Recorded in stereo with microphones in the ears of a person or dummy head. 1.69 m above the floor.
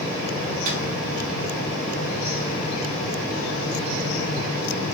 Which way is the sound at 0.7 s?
40° right (ahead or behind).